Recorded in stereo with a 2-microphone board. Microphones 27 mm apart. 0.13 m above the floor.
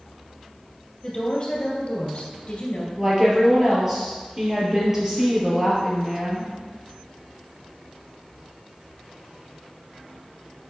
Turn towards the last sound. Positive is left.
turn(degrees=-20)  # may be behind; listen again after turning